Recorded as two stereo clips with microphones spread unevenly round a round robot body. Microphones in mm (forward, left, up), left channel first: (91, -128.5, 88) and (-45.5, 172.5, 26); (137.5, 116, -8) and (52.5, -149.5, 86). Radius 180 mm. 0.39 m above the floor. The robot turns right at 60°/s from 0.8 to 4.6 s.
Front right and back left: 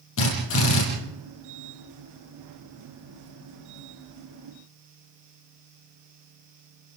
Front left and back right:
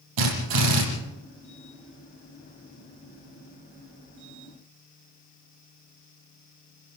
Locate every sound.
0.2 s a drill: 120° right, 7.5 m